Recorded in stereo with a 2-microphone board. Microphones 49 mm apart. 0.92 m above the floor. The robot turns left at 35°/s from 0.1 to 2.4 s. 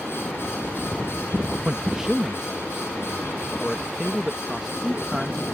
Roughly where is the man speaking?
Right.